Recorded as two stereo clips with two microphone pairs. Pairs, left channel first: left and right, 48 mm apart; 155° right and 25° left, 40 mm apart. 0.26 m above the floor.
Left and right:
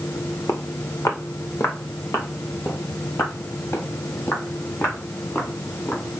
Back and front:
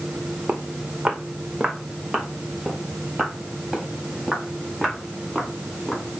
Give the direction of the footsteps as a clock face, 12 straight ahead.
9 o'clock.